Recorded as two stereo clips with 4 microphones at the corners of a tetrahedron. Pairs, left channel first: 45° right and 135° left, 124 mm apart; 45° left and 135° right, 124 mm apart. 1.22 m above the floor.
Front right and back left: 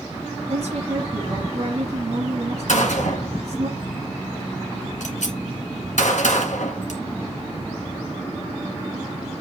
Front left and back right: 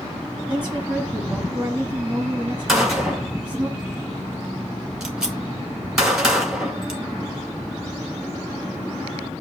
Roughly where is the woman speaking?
Behind left.